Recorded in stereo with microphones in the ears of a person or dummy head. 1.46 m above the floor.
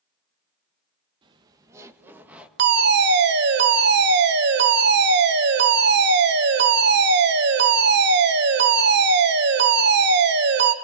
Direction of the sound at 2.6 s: 60° right (ahead or behind).